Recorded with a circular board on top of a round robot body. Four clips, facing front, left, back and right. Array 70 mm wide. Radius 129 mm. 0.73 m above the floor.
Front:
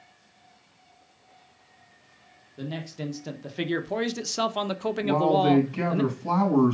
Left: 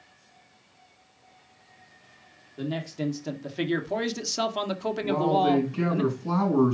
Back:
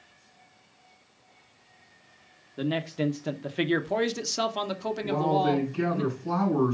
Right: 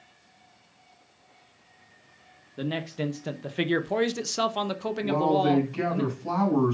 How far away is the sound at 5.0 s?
About 4.5 m.